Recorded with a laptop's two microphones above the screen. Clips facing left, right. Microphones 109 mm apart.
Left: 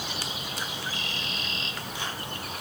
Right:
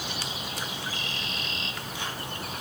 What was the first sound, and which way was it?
Only background noise.